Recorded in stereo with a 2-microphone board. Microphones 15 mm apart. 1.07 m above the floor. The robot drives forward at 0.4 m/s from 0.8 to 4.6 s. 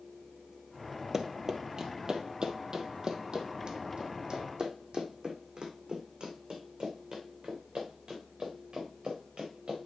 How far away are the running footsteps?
About 1.2 m.